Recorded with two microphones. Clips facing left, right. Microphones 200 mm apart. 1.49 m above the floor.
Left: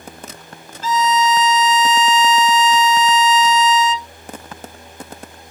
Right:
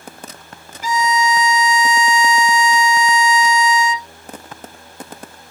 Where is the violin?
15° right (ahead or behind).